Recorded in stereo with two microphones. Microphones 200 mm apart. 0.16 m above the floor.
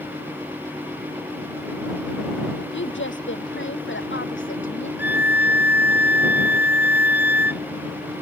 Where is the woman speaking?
75° left (ahead or behind).